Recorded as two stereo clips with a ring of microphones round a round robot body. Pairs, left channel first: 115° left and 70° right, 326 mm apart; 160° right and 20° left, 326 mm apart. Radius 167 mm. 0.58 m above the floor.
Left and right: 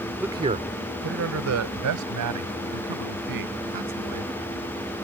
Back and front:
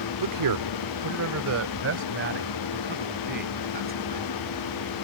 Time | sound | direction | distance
0.2 | a man speaking | 20° left | ?